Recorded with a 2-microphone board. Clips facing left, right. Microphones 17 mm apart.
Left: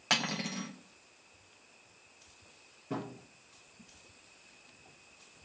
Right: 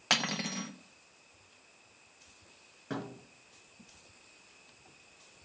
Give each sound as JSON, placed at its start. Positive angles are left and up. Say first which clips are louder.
{"t": 0.1, "sound": "cutlery clinking", "louder": "right 1 dB", "side_deg": -10, "distance_m": 0.6}
{"t": 2.9, "sound": "a thud", "louder": "even", "side_deg": -60, "distance_m": 3.5}